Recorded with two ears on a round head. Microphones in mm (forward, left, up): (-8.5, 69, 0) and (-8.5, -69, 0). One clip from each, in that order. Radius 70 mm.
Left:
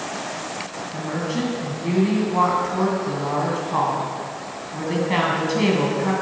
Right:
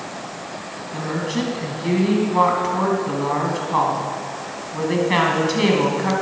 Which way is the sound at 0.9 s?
25° right (ahead or behind).